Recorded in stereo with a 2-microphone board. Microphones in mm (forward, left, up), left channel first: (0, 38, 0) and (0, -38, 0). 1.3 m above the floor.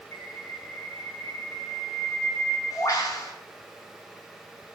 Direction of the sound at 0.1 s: 45° left (ahead or behind).